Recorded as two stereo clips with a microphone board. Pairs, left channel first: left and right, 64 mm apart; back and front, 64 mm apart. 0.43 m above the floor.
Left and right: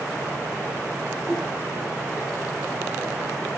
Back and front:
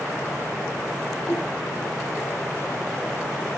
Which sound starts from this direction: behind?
A whoosh, at 1.3 s.